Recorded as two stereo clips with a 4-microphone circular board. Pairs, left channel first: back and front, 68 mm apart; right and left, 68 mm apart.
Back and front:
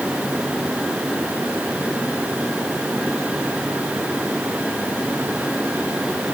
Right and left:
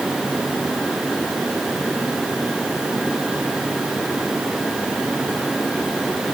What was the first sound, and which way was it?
Only background noise.